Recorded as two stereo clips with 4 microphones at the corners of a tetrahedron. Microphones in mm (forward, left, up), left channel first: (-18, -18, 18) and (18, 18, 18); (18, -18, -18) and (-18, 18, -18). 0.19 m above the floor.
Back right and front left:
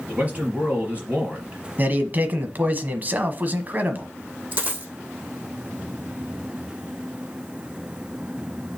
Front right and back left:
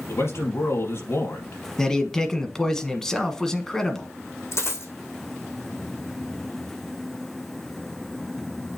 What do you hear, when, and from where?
0.1 s a man speaking: 20° right, 4 m
1.8 s a man speaking: 30° left, 1.2 m
4.5 s a dropped coin: 15° right, 3 m